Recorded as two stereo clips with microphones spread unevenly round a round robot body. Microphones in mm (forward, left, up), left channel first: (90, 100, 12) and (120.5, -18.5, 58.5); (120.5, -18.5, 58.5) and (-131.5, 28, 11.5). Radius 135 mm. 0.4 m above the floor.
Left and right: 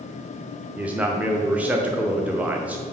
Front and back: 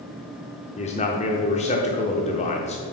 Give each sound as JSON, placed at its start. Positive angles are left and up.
{"t": 0.8, "sound": "a man speaking", "azimuth_deg": 40, "distance_m": 0.8}